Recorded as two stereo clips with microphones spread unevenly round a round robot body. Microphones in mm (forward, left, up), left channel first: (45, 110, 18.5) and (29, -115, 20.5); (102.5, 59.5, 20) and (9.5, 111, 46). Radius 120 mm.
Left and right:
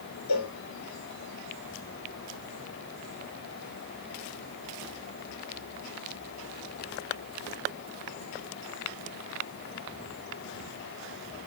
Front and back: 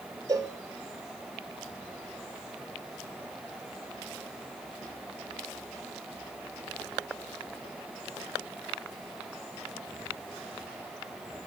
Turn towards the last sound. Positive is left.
turn(degrees=95)